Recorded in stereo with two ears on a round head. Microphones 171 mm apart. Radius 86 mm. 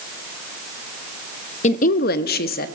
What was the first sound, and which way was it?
A woman speaking, 35° left (ahead or behind).